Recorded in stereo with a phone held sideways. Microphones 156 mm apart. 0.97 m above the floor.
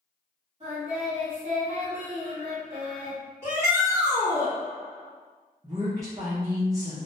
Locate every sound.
0.6 s singing: 40° right (ahead or behind), 1.7 m
3.4 s a shout: 20° right (ahead or behind), 2.0 m
5.6 s a woman speaking: 20° right (ahead or behind), 0.7 m